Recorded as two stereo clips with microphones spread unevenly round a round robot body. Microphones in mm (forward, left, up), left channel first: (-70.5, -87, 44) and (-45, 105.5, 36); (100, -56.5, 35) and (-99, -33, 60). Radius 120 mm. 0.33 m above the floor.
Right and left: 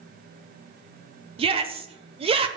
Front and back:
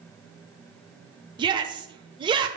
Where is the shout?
110° left, 0.9 m.